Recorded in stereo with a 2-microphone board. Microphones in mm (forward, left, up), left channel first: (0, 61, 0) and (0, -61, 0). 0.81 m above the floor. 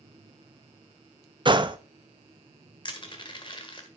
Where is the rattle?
I don't hear a rattle.